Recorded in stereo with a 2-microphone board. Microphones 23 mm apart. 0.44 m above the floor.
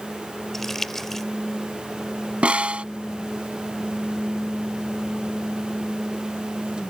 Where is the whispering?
No whispering in this recording.